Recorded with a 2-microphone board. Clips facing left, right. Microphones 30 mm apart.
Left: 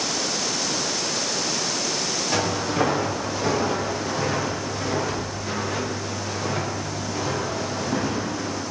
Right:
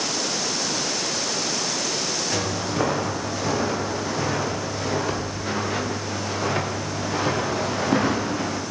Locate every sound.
2.3 s footsteps: 10° left (ahead or behind), 4 m; by 8.6 s 65° right (ahead or behind), 2.5 m